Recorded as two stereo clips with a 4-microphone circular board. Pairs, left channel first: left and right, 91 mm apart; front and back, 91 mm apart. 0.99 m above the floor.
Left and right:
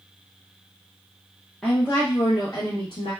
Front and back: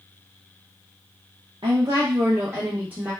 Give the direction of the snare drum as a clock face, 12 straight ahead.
No snare drum in this recording.